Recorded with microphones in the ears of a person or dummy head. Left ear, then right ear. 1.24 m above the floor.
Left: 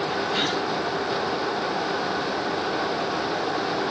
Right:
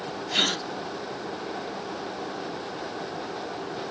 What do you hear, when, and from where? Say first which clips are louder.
0.3 s a gasp: right 4 dB; 20° right (ahead or behind)